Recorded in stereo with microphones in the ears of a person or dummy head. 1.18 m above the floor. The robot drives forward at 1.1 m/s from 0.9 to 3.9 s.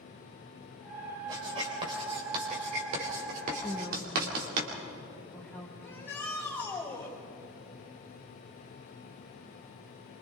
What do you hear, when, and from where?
1.3 s writing: 30° right (ahead or behind), 5 m; by 4.6 s 60° right (ahead or behind), 3 m
3.6 s a woman speaking: 5° left (ahead or behind), 1.8 m
5.8 s a shout: 10° left (ahead or behind), 5.5 m